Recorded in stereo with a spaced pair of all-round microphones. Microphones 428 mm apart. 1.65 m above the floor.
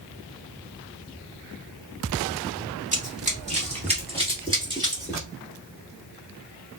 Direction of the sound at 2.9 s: 15° right (ahead or behind).